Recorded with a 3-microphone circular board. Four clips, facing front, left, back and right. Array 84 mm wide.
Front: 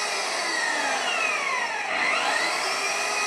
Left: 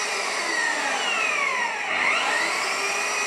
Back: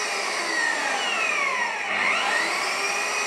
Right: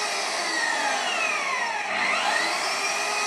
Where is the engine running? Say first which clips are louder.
Left 1 dB, even; 115° left, 1.1 m.